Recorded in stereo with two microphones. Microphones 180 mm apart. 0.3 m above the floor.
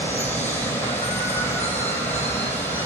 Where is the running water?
10° left (ahead or behind), 0.8 m.